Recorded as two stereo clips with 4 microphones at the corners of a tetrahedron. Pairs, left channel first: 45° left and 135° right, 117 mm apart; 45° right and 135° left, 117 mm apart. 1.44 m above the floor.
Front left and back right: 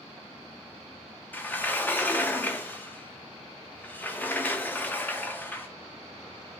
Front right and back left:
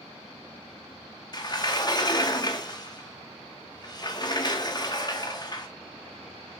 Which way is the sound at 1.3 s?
20° right.